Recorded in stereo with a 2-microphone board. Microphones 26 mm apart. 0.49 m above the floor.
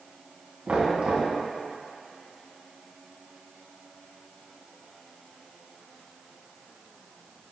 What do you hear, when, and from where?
0.7 s knocking: 45° right (ahead or behind), 3 m